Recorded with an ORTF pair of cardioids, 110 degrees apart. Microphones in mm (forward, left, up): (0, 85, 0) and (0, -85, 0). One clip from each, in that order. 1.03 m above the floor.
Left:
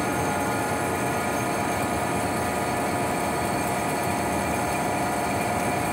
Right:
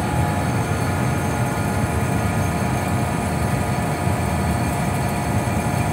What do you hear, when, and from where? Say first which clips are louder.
0.0 s a fan: right 2 dB; 65° right